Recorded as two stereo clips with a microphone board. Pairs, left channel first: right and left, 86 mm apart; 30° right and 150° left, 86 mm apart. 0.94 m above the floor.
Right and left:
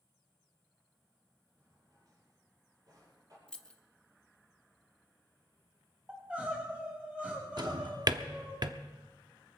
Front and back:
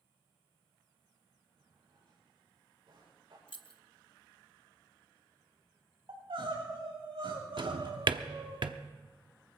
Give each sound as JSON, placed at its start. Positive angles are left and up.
{"t": 1.6, "sound": "a drawer", "azimuth_deg": 135, "distance_m": 8.5}
{"t": 3.5, "sound": "keys jangling", "azimuth_deg": -10, "distance_m": 0.8}
{"t": 6.1, "sound": "crying", "azimuth_deg": 165, "distance_m": 5.5}
{"t": 7.6, "sound": "a drawer", "azimuth_deg": 125, "distance_m": 0.8}